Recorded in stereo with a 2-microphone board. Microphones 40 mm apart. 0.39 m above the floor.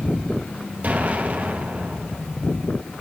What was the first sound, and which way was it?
An explosion, 40° right (ahead or behind).